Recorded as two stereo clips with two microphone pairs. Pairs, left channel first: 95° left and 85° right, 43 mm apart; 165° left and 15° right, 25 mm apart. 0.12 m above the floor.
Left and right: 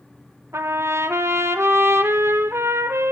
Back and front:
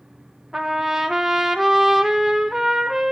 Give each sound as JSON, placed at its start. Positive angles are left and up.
{"t": 0.5, "sound": "a trumpet", "azimuth_deg": -85, "distance_m": 0.6}